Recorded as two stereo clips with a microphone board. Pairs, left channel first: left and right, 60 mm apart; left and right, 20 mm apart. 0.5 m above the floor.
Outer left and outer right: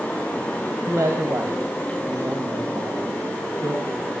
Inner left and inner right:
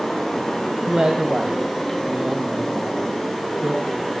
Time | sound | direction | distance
0.9 | a man speaking | 65° right (ahead or behind) | 2.5 m